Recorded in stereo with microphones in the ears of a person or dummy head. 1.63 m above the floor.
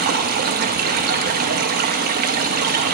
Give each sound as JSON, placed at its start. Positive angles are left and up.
{"t": 0.0, "sound": "running water", "side_deg": -50, "distance_m": 0.8}